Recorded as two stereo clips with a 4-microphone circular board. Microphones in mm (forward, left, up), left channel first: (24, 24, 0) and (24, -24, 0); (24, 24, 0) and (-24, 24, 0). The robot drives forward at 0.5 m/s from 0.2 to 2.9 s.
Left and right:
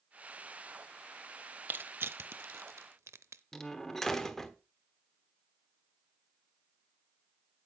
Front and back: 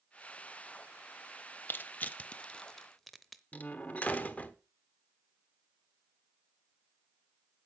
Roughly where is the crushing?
Ahead right.